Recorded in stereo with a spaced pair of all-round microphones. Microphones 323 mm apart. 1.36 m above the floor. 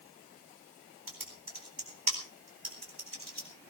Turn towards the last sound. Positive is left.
turn(degrees=-85)